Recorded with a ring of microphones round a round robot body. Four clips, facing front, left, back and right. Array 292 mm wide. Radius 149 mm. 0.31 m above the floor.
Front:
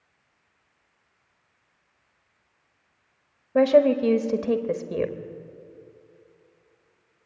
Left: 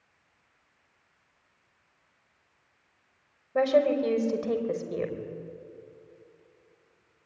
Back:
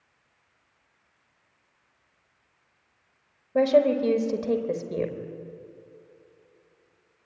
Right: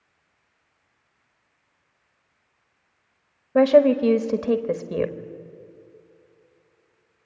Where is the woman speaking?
70° right, 1.5 m.